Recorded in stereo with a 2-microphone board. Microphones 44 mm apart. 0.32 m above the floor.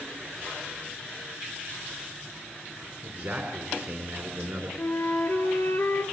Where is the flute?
60° left (ahead or behind), 1.2 m.